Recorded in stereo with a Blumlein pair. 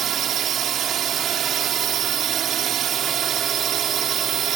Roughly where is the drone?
Ahead right.